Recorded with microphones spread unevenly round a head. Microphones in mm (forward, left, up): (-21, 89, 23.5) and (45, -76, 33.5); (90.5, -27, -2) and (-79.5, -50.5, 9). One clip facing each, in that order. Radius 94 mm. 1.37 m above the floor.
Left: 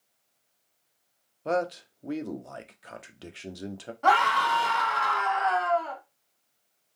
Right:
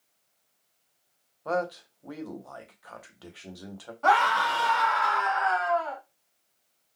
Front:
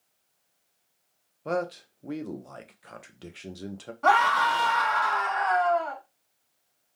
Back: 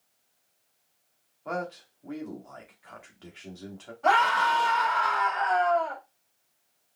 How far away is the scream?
About 2 m.